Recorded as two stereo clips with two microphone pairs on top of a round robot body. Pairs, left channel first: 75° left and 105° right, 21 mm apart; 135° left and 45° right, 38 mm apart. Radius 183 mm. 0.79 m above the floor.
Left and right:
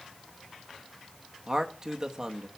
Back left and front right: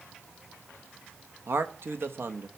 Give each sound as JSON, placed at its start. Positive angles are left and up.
{"t": 1.5, "sound": "a man speaking", "azimuth_deg": -40, "distance_m": 1.2}